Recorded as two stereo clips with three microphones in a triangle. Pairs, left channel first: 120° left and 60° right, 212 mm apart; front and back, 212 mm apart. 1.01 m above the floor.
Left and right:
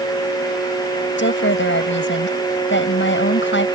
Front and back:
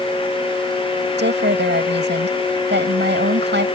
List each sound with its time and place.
1.2 s a woman speaking: 145° left